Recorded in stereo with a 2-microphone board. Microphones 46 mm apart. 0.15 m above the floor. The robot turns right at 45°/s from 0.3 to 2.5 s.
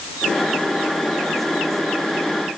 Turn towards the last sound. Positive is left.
No sound to turn to.